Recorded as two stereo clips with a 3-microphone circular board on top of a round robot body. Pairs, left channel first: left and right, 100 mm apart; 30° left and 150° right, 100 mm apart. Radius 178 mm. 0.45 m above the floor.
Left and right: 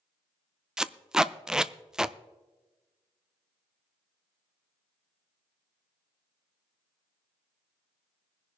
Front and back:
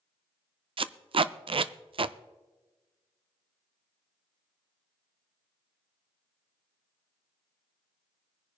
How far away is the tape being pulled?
About 0.5 m.